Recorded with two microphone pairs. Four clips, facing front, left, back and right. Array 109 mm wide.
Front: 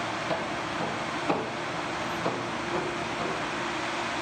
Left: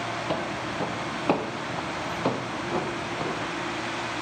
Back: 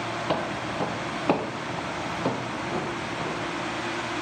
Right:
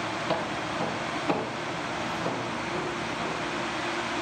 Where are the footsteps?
Straight behind, 1.8 m; by 3.5 s 90° left, 2.5 m.